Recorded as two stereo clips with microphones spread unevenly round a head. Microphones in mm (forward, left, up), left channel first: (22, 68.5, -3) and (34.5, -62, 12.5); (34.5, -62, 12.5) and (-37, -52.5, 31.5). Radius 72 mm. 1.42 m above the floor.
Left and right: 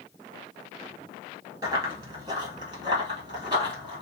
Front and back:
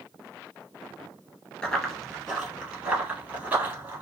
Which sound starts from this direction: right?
Running footsteps, at 1.6 s.